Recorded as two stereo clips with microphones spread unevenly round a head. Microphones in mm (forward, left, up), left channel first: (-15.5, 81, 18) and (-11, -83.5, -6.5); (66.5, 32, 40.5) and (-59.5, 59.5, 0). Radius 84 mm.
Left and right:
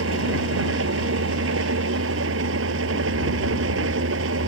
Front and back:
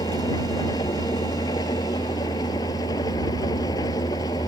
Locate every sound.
0.0 s an engine running: 80° right